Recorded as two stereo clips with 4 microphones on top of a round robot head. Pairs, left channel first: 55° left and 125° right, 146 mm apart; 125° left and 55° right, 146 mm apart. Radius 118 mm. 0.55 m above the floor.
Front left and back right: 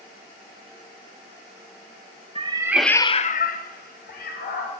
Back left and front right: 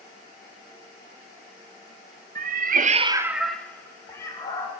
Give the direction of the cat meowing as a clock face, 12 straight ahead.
2 o'clock.